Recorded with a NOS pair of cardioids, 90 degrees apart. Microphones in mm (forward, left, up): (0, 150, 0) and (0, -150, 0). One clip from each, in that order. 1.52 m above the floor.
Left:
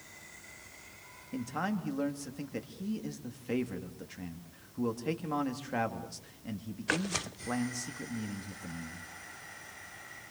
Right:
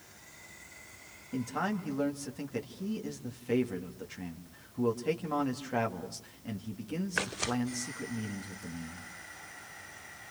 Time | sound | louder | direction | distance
1.3 | a man speaking | right 2 dB | 5° right | 3 m